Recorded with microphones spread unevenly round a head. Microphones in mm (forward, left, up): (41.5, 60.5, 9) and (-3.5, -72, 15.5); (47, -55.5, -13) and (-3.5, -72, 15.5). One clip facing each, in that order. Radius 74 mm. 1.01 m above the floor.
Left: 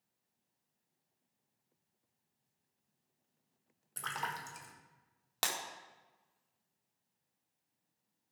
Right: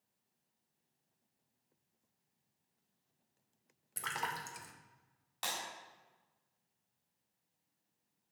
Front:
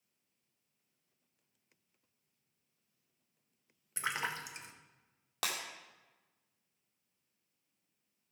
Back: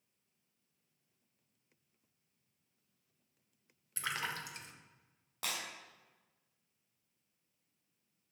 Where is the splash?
25° right, 1.3 m.